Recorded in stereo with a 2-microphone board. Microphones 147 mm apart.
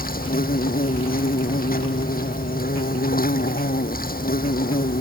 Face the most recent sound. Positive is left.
turn(degrees=90)